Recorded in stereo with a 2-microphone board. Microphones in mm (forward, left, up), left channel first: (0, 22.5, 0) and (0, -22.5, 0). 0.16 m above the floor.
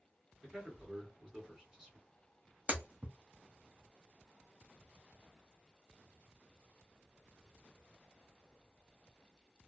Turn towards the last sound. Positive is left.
turn(degrees=-30)  # may be behind; listen again after turning